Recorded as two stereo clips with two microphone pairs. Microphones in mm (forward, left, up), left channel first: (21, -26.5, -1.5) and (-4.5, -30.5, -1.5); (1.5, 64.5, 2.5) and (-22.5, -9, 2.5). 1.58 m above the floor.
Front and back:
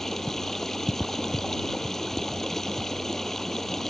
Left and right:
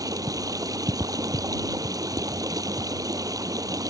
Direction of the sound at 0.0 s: 65° right.